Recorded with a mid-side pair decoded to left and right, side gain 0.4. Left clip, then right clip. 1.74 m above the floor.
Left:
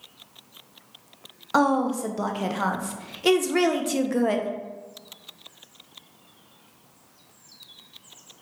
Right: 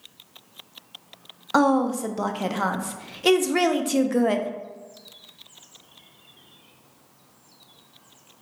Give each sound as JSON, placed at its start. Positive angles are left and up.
{"t": 1.5, "sound": "a woman speaking", "azimuth_deg": -15, "distance_m": 0.5}